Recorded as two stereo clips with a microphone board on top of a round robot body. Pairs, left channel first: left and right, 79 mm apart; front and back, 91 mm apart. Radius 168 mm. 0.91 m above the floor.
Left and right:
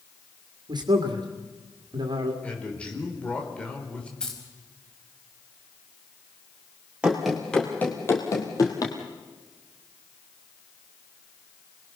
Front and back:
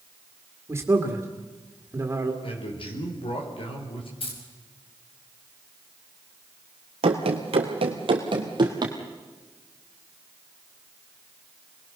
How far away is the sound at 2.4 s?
About 5 m.